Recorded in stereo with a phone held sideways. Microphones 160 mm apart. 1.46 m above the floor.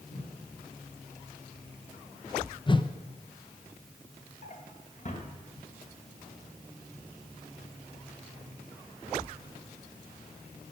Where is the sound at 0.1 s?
55° left (ahead or behind), 5 m.